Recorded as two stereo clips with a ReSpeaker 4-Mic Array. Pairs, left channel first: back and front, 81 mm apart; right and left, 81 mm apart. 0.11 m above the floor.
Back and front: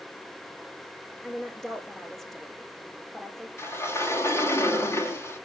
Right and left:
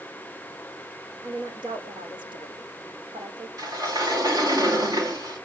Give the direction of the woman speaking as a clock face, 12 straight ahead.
9 o'clock.